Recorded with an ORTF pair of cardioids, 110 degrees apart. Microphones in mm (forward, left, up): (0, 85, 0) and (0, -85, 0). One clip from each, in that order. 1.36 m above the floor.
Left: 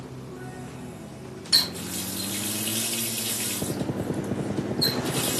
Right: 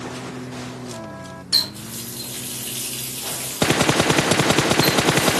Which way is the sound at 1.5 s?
Straight ahead.